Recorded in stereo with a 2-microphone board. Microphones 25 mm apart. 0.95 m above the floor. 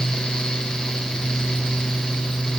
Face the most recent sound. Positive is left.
No sound to turn to.